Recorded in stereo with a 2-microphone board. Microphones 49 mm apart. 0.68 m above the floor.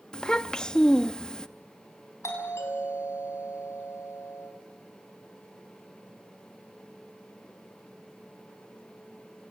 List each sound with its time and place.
0.1 s a child speaking: 15° left (ahead or behind), 0.7 m
2.2 s a doorbell: 75° left (ahead or behind), 5.5 m